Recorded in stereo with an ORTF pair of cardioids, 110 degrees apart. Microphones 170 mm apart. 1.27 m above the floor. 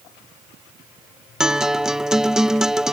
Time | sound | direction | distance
1.4 | a guitar | 5° right | ?